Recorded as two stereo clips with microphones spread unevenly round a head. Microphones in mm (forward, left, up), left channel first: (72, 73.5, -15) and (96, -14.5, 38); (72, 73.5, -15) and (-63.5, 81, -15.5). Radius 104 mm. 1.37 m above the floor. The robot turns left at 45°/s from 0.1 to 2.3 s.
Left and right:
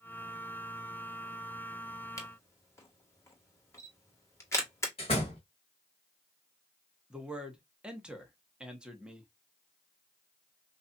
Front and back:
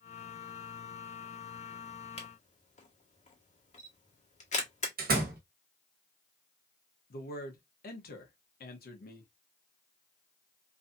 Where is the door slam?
Straight behind, 1.1 m.